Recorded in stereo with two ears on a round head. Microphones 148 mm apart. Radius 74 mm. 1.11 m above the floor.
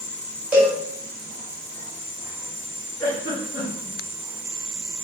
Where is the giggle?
45° left (ahead or behind), 1.6 m.